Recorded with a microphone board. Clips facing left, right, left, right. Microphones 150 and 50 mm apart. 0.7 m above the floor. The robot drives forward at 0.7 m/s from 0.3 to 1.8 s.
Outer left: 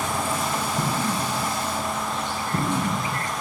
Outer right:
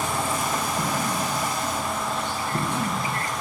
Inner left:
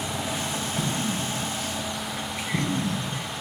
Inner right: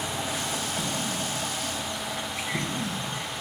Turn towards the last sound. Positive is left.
turn(degrees=65)  # may be behind; listen again after turning